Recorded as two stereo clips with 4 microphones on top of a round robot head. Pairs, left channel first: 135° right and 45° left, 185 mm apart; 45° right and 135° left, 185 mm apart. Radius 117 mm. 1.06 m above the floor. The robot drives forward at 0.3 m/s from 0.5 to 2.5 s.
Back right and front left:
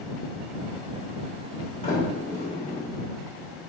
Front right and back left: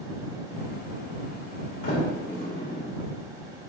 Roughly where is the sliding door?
Right.